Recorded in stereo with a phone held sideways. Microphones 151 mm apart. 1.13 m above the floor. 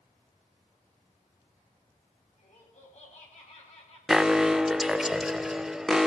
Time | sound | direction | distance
2.4 | laughter | 55° left (ahead or behind) | 8 m
4.1 | an alarm | 5° right (ahead or behind) | 0.7 m